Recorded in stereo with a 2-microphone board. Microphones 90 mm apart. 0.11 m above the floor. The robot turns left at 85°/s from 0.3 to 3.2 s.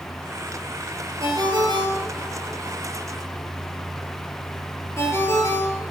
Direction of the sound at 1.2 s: 35° right (ahead or behind).